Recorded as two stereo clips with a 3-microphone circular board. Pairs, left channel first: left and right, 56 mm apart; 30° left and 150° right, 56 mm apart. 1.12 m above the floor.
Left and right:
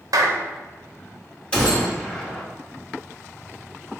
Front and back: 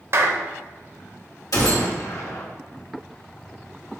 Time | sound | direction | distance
0.1 | a clap | 105° right | 0.5 m
1.5 | a gunshot | 15° left | 1.2 m